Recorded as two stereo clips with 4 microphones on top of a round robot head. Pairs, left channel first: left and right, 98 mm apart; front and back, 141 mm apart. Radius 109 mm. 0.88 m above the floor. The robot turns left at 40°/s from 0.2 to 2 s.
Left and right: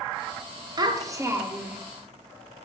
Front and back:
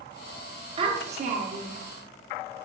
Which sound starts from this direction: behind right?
A child speaking, at 0.8 s.